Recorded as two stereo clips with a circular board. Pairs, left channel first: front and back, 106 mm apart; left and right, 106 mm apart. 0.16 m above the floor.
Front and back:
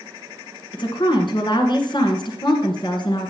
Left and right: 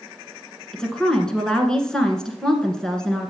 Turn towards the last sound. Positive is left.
turn(degrees=10)